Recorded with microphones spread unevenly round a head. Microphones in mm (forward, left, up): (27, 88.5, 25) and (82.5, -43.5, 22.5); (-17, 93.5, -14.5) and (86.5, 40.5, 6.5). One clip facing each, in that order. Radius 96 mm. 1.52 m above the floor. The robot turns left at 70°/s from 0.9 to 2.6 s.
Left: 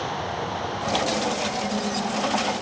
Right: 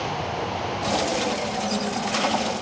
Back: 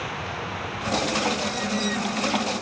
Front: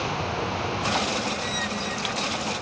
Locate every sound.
Only background noise.